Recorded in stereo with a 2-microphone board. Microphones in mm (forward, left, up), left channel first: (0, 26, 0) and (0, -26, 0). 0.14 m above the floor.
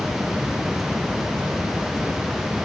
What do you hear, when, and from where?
Only background noise.